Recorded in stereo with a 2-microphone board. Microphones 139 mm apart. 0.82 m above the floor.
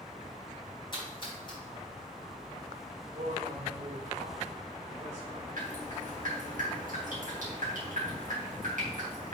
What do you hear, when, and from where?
0.9 s a splash: 35° left (ahead or behind), 3.5 m
3.1 s a man speaking: 60° right (ahead or behind), 2.5 m
5.6 s dripping: 75° right (ahead or behind), 3 m